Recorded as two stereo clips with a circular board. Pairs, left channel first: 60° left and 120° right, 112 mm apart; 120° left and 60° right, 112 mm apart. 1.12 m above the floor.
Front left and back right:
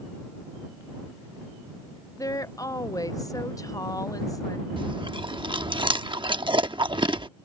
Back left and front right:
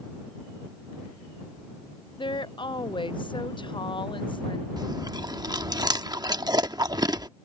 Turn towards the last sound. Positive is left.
turn(degrees=-100)